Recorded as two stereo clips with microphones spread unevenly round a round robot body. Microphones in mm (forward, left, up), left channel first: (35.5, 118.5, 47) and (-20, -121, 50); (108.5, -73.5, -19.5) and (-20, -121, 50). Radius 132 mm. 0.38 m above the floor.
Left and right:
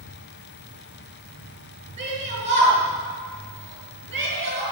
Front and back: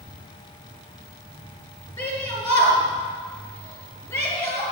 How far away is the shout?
About 5 m.